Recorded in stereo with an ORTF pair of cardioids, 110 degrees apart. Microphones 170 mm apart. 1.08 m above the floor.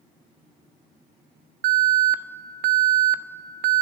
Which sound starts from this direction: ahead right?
An alarm, at 1.6 s.